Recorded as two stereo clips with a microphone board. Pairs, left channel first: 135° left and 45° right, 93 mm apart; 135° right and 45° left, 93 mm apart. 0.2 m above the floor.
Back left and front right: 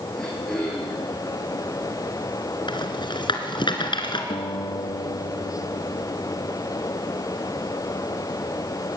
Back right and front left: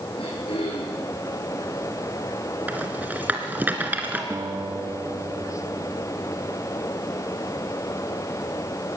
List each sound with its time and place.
0.2 s throat clearing: 140° right, 7 m
2.7 s a rattle: 115° left, 3 m
4.3 s a guitar: 105° left, 2.5 m